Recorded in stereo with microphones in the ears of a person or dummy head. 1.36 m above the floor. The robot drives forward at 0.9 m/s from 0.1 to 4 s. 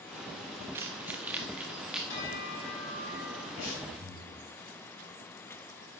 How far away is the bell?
About 6 m.